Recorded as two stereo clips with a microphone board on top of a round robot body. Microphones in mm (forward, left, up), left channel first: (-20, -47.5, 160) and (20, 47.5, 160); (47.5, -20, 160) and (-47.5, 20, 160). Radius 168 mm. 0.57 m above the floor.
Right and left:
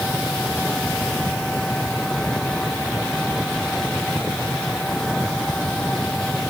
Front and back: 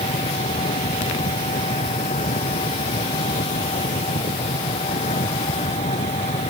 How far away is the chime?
I don't hear a chime.